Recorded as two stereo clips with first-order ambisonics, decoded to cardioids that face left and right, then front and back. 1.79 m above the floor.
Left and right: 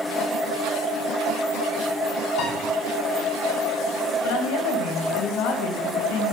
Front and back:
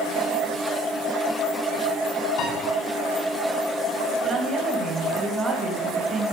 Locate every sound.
2.4 s a piano: 35° left, 8 m
4.2 s a woman speaking: 110° left, 3 m